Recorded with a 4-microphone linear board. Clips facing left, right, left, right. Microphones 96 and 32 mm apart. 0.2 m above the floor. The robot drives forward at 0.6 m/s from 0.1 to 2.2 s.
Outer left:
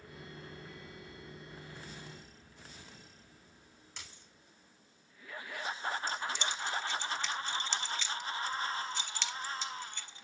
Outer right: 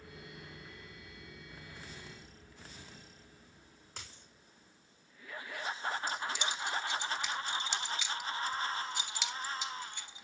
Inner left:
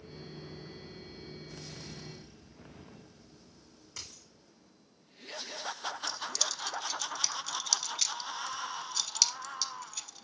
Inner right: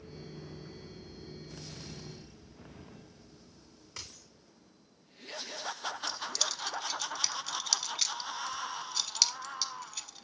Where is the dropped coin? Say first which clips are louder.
Outer right 2 dB, even; 45° right (ahead or behind), 3.5 m.